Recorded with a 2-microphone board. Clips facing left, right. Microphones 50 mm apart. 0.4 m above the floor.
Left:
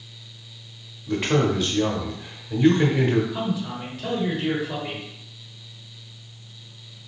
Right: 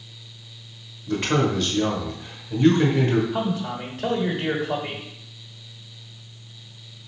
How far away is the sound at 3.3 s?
About 1.2 m.